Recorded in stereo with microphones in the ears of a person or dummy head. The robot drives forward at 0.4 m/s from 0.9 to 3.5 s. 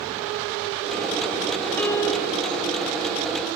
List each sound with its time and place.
1.8 s a piano: 10° left (ahead or behind), 2 m